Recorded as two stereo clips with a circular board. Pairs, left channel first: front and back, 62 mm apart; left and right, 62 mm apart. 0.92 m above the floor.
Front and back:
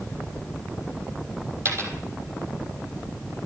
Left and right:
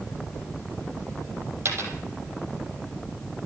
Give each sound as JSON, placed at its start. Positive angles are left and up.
{"t": 1.6, "sound": "a dropped coin", "azimuth_deg": -135, "distance_m": 3.0}